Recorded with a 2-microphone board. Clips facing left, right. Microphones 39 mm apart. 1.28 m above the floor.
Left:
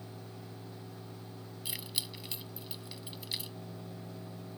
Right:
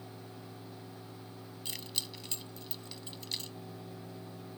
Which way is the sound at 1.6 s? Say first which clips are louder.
Left 1 dB; 10° left (ahead or behind).